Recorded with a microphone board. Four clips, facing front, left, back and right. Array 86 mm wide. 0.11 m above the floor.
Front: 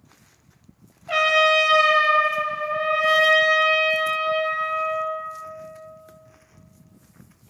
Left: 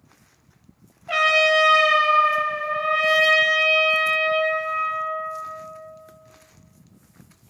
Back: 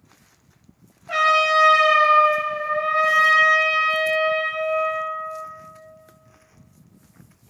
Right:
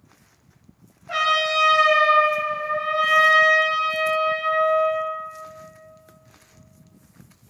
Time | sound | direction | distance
1.1 | a trumpet | 55° left | 0.6 m